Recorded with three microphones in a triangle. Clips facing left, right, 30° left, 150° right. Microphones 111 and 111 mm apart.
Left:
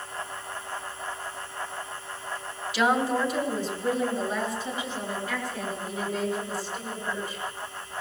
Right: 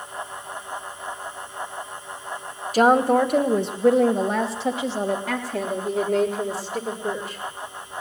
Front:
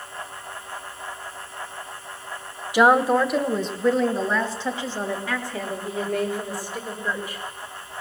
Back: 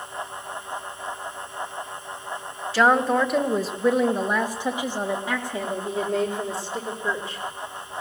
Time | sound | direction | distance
2.7 | a woman speaking | 45° right | 1.3 m